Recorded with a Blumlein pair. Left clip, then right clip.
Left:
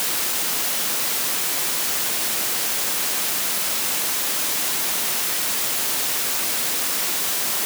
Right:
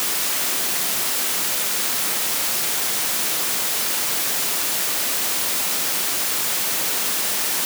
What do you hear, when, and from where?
Only background noise.